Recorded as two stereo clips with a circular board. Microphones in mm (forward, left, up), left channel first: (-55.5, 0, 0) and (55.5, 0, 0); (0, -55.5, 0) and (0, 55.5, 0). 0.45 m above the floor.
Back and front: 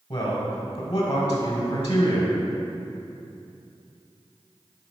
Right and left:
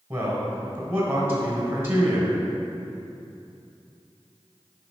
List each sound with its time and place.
0.1 s a man speaking: 155° left, 1.8 m